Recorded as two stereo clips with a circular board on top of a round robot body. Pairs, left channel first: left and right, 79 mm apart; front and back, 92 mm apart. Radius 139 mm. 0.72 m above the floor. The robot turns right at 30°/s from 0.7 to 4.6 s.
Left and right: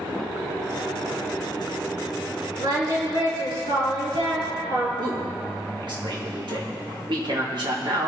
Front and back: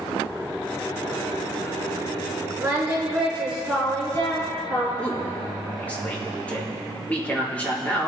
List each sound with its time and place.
2.6 s singing: 120° right, 4.5 m; by 4.9 s 60° right, 4.5 m
5.0 s a man speaking: 75° right, 3.5 m